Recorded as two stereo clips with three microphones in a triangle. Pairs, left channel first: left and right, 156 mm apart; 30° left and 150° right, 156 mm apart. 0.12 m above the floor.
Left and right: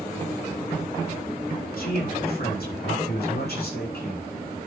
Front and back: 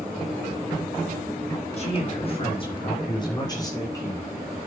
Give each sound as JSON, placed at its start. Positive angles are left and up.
{"t": 1.8, "sound": "a man speaking", "azimuth_deg": 75, "distance_m": 6.5}